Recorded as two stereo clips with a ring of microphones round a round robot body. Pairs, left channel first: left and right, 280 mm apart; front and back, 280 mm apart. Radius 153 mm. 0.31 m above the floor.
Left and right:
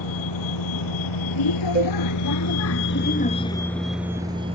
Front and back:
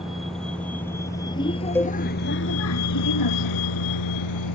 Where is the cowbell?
75° right.